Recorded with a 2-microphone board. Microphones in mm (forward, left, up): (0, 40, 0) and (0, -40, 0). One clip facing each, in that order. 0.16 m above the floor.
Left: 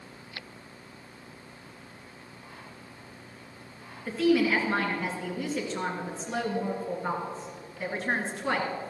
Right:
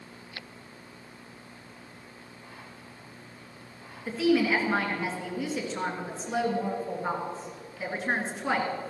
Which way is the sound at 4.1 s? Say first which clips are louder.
Even; 5° right (ahead or behind).